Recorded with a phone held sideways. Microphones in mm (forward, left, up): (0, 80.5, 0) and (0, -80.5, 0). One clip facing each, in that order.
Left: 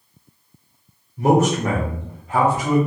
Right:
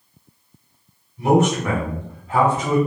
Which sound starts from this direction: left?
A man speaking, at 1.2 s.